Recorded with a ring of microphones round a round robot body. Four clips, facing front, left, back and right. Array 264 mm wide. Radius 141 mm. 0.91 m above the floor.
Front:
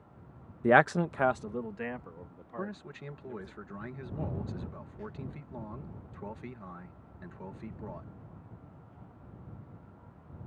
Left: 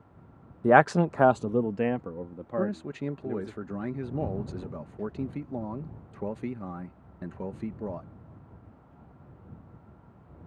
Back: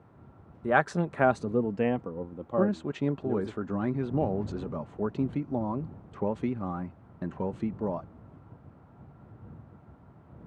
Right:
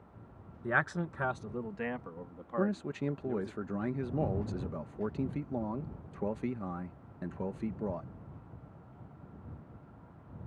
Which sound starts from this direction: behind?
A man speaking, at 2.6 s.